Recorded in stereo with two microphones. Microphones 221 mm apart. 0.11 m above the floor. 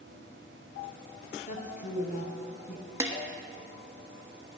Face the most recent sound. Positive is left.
turn(degrees=-15)  # may be behind; listen again after turning